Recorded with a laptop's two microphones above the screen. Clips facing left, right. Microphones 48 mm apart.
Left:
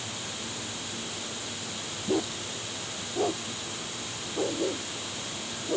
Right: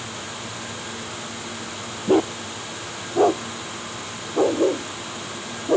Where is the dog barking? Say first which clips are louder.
Right 10 dB; 50° right (ahead or behind).